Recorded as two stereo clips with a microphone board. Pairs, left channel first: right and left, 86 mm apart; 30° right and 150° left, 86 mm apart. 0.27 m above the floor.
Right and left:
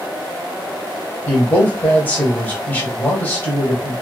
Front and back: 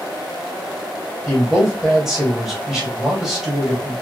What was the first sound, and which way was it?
A man speaking, 135° right.